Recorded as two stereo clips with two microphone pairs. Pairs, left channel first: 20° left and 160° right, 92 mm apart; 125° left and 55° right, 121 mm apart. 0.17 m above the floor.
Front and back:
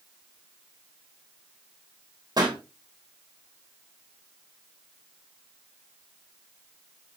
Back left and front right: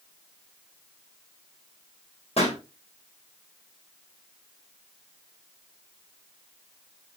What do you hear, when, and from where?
2.4 s a pop: 155° left, 3.5 m